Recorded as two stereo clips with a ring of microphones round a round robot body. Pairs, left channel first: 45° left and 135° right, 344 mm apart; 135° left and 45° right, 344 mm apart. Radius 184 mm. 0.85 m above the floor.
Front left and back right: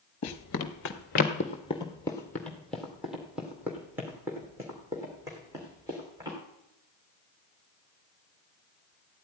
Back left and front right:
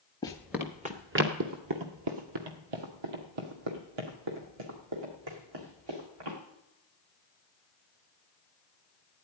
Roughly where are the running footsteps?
Ahead left.